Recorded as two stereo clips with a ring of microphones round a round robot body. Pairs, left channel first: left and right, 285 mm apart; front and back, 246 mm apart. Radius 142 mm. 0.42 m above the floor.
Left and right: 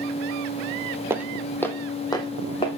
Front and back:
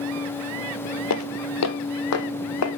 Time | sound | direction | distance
1.1 | footsteps | 10° right | 0.7 m